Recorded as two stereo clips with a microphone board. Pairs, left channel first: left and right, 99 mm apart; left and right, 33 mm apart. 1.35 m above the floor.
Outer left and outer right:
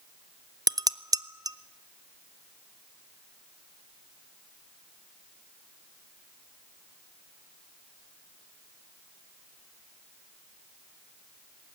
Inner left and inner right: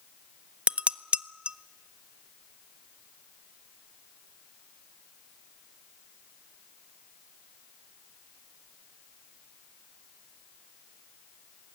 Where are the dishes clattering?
40° right (ahead or behind), 0.5 m.